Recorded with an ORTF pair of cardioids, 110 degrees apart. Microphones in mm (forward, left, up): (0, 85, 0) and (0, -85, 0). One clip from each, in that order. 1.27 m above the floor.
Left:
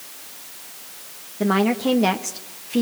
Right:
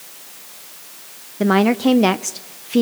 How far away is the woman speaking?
About 0.8 m.